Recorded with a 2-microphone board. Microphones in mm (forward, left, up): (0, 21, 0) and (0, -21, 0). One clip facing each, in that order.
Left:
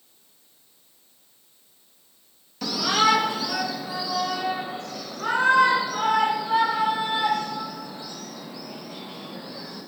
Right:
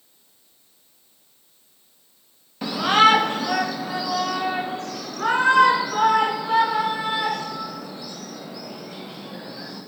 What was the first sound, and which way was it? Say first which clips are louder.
A shout: right 5 dB; 20° right (ahead or behind).